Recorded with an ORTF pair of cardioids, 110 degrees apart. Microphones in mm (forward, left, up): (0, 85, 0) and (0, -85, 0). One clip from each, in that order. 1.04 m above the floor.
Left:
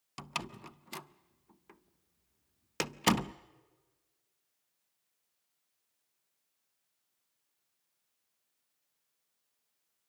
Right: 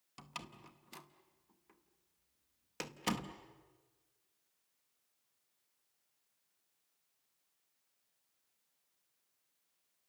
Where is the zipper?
No zipper in this recording.